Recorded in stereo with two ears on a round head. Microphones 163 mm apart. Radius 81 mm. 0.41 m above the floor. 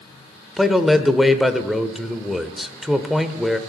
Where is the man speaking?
Centre (ahead or behind), 1.0 m.